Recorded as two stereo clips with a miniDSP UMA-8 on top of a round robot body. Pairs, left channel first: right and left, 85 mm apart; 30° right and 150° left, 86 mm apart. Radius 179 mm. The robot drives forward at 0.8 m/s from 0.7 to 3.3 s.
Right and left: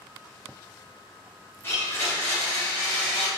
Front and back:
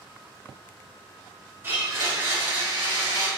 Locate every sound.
1.6 s a blender: 150° right, 1.7 m; by 3.3 s 165° right, 3 m